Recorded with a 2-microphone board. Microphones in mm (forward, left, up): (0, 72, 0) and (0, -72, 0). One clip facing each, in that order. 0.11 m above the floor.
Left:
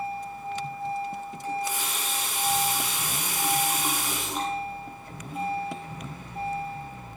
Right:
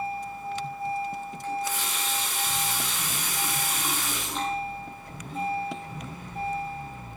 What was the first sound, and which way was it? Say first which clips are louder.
A running tap: even; 15° left (ahead or behind).